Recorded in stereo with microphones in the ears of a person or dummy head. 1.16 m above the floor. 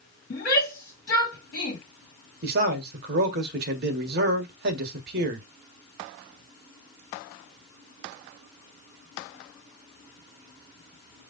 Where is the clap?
No clap in this recording.